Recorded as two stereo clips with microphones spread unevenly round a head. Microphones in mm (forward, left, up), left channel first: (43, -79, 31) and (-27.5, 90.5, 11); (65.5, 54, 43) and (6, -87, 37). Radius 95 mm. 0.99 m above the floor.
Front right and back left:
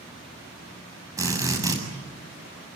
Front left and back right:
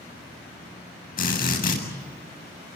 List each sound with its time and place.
1.2 s a drill: 40° left, 7.5 m